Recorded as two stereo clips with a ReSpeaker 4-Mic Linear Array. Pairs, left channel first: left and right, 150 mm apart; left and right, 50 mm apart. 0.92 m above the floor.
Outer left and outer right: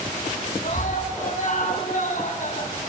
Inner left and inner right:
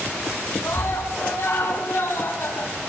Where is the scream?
65° left (ahead or behind), 7 m.